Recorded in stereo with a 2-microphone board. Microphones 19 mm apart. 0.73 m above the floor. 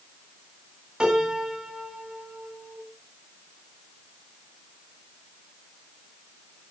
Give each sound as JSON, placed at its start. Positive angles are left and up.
{"t": 1.0, "sound": "a piano", "side_deg": -50, "distance_m": 6.5}